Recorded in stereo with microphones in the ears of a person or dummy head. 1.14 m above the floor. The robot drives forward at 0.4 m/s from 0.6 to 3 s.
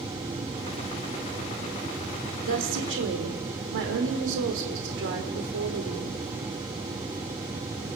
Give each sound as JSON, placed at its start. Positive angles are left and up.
{"t": 2.5, "sound": "a woman speaking", "side_deg": -60, "distance_m": 3.5}